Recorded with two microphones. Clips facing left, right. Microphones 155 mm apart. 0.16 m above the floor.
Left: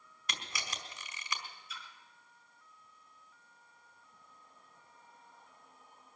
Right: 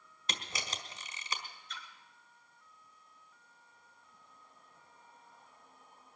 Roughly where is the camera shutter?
Right.